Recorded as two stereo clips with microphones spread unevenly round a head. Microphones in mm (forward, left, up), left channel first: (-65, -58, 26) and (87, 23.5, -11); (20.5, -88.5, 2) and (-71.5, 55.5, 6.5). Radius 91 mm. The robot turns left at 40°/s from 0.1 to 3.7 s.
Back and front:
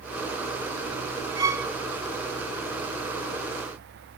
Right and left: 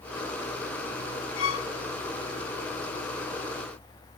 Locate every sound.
1.4 s a violin: 40° right, 1.4 m; by 1.7 s 55° right, 1.4 m